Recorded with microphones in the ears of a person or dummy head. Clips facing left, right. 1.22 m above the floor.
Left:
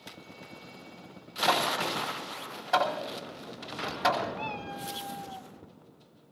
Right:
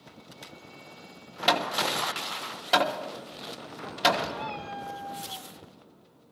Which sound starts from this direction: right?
Hammering, at 1.5 s.